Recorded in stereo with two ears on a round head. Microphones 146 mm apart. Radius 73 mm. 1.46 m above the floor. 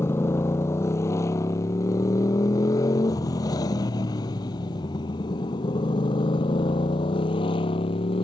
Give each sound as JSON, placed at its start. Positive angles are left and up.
{"t": 0.0, "sound": "a motorcycle", "side_deg": 15}